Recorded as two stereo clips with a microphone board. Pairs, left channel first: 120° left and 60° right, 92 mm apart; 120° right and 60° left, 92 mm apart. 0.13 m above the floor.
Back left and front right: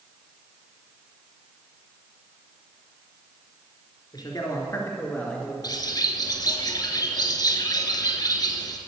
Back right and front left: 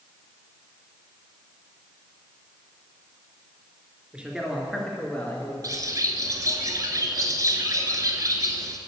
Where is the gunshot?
I don't hear a gunshot.